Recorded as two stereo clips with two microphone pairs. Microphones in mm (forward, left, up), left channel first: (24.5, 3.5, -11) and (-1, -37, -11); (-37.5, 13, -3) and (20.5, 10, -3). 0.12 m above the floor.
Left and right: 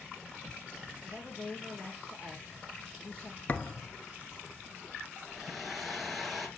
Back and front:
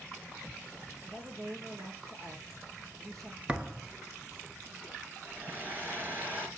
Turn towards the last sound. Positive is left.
turn(degrees=-35)